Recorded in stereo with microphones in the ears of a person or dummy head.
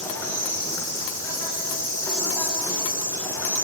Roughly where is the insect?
Centre.